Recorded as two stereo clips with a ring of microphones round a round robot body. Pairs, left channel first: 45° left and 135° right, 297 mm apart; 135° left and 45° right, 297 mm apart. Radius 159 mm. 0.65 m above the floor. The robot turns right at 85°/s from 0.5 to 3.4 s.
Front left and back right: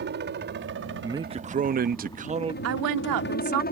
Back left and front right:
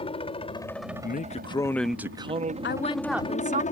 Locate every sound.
0.0 s a helicopter: 165° right; by 3.7 s 85° left
1.0 s a man speaking: 150° left; by 2.5 s 80° right
2.6 s a woman speaking: 175° right; by 3.6 s 110° right